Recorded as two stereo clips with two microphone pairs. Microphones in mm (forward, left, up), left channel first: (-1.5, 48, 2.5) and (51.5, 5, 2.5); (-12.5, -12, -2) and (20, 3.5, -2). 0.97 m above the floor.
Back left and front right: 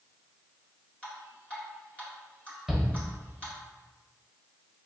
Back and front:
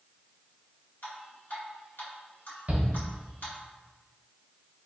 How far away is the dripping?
About 1.6 m.